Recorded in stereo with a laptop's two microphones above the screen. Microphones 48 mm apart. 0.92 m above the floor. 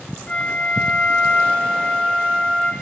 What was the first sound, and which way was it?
A flute, 20° left (ahead or behind).